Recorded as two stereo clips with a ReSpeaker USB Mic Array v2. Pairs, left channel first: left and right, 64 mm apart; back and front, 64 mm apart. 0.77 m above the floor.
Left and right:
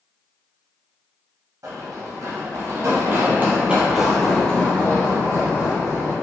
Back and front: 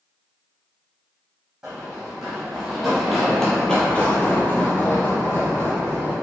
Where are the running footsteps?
80° right, 1.6 m; by 6.2 s 125° left, 1.5 m.